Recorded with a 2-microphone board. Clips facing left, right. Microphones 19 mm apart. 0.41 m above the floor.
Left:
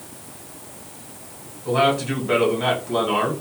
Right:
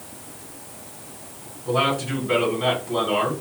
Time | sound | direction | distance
1.6 | a man speaking | 35° left (ahead or behind) | 1.6 m